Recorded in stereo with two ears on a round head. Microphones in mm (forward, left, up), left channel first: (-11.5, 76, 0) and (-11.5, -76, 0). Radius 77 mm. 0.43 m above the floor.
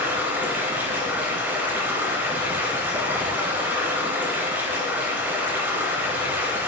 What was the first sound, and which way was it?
Running water, 10° right (ahead or behind).